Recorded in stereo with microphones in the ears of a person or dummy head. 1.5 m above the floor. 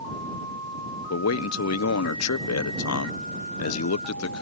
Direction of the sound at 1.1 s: 75° left (ahead or behind).